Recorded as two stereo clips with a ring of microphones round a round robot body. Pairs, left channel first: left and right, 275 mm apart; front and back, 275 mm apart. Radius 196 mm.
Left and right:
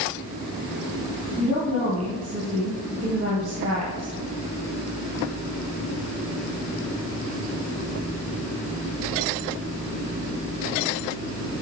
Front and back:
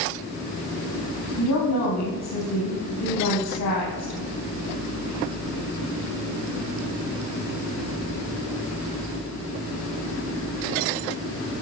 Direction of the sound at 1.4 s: 25° right.